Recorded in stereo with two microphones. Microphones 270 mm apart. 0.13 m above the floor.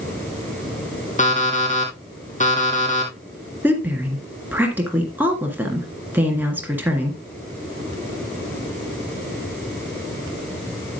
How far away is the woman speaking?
About 1.9 m.